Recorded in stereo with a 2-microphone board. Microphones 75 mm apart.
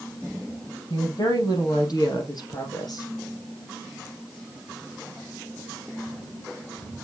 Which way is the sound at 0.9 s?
70° left (ahead or behind).